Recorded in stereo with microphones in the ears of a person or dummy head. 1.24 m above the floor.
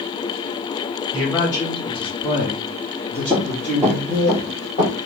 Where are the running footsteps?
15° right (ahead or behind), 1.7 m; by 4.9 s 25° left (ahead or behind), 2 m.